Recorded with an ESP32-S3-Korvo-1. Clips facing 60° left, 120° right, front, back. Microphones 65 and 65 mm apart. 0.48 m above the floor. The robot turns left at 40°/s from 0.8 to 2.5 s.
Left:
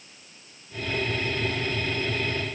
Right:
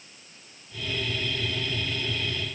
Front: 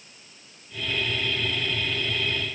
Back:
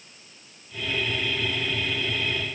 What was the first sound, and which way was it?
Only background noise.